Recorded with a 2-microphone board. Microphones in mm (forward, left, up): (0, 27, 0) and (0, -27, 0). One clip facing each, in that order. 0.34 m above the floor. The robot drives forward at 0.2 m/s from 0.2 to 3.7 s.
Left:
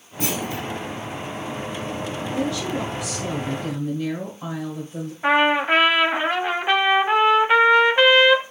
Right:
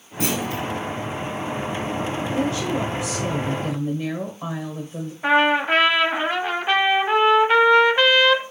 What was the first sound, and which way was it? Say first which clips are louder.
A clunk: right 2 dB; 85° right.